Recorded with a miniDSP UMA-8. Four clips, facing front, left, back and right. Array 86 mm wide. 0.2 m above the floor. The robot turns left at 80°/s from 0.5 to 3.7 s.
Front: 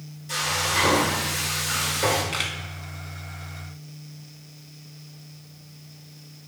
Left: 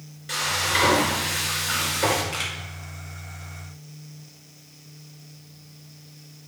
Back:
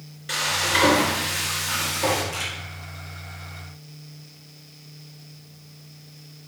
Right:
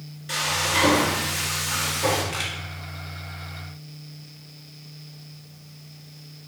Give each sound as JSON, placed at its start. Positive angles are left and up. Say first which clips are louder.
{"t": 0.3, "sound": "frying", "louder": "even, back 2 dB", "azimuth_deg": -175, "distance_m": 3.0}
{"t": 2.3, "sound": "a camera shutter", "louder": "right 1 dB, front 2 dB", "azimuth_deg": 10, "distance_m": 1.6}